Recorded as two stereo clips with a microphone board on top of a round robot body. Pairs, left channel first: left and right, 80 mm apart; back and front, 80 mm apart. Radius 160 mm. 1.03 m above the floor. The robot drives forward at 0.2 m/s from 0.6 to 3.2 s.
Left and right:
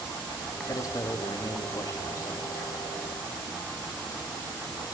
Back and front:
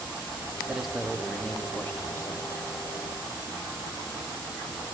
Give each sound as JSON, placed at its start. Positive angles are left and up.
{"t": 0.7, "sound": "a man speaking", "azimuth_deg": 75, "distance_m": 0.6}